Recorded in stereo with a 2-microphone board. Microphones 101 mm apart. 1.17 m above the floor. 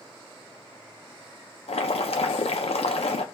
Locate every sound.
1.7 s boiling: 80° left, 0.5 m